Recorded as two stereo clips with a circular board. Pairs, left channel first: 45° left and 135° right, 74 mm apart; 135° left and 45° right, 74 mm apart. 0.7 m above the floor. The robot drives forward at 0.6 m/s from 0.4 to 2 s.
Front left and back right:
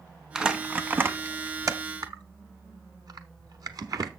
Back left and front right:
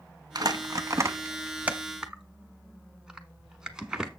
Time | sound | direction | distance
0.3 | crumpling | 55° right | 1.0 m